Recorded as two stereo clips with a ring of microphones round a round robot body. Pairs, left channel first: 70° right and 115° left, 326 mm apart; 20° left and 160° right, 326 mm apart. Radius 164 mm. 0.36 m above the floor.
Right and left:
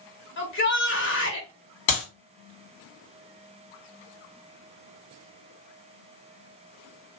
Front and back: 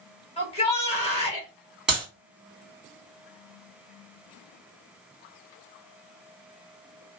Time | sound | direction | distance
0.4 | a shout | 40° right | 1.5 m
1.9 | a clap | 70° right | 2.5 m